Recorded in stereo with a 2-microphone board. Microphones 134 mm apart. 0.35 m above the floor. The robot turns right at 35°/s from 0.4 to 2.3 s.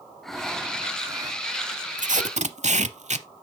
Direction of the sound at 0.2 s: 175° left.